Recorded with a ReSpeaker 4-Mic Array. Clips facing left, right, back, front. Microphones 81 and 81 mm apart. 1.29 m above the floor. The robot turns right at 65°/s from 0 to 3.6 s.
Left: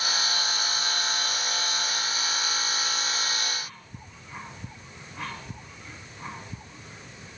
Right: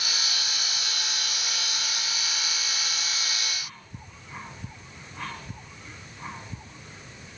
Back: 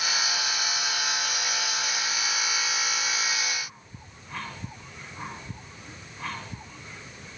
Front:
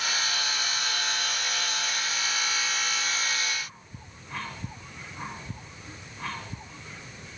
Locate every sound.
Only background noise.